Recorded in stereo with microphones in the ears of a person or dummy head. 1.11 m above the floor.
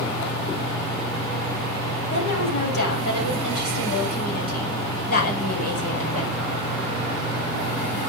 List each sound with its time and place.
2.1 s a woman speaking: 65° left (ahead or behind), 7 m; by 6.4 s 50° left (ahead or behind), 4 m